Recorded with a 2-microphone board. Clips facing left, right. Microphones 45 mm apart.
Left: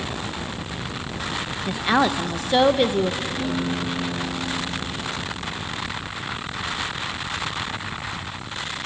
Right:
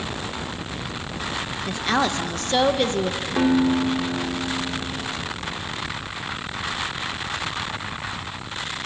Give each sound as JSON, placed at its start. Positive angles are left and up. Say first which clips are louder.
{"t": 1.7, "sound": "a woman speaking", "louder": "left 3 dB", "side_deg": 10, "distance_m": 0.7}
{"t": 3.4, "sound": "a guitar", "louder": "right 6 dB", "side_deg": -75, "distance_m": 2.5}